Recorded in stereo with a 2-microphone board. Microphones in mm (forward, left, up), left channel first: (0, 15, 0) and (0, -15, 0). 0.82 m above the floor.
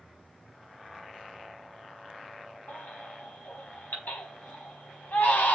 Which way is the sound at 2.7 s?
75° left (ahead or behind).